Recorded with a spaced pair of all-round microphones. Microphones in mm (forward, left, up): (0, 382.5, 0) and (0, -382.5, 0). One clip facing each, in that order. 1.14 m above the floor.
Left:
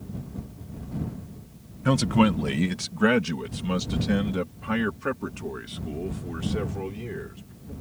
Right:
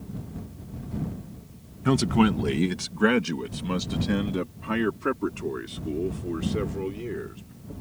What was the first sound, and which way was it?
A man speaking, 10° left (ahead or behind).